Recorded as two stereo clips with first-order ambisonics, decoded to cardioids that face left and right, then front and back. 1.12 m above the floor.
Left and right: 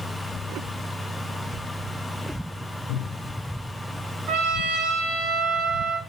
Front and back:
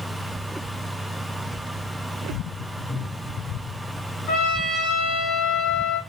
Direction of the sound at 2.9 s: 80° left.